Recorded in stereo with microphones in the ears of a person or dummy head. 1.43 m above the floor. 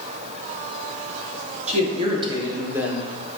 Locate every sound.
1.7 s a man speaking: 35° right (ahead or behind), 1.6 m; by 3.1 s centre (ahead or behind), 1.3 m